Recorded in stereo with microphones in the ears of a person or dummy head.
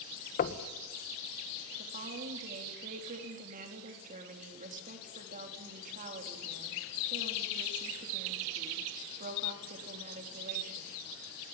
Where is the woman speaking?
45° right (ahead or behind), 4 m.